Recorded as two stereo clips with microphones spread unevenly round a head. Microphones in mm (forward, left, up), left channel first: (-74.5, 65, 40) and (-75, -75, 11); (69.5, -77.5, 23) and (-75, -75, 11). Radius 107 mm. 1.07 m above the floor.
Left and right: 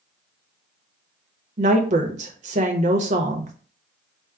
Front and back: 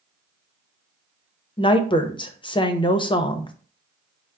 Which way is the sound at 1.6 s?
60° right.